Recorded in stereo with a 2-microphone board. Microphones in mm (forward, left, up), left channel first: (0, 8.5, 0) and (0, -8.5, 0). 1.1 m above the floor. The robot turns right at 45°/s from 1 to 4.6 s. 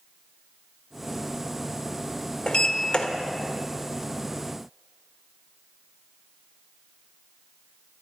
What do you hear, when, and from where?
2.5 s a sliding door: 60° left (ahead or behind), 1.2 m